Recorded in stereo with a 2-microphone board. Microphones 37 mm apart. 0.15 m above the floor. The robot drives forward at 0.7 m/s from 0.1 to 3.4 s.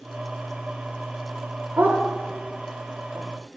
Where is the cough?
No cough in this recording.